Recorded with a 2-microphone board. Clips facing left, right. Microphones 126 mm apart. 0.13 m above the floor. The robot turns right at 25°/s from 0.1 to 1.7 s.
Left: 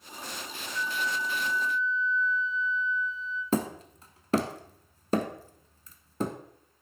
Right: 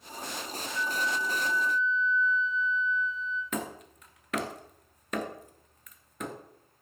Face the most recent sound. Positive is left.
turn(degrees=30)  # may be behind; listen again after turning